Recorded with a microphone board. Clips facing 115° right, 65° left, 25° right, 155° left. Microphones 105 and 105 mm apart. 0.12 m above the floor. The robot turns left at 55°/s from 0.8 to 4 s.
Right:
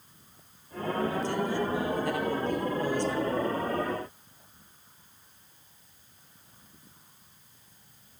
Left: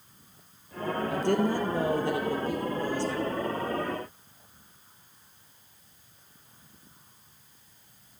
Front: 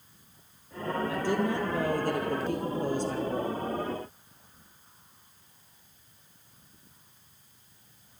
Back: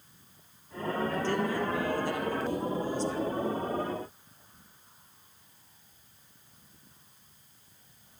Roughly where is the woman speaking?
Ahead left.